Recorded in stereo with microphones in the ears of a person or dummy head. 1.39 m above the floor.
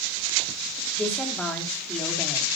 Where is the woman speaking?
5° left (ahead or behind), 3 m.